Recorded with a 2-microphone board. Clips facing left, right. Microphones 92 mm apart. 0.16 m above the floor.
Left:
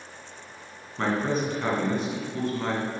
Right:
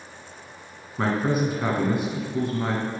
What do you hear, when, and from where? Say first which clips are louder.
1.0 s a man speaking: right 2 dB; 10° right (ahead or behind), 1.7 m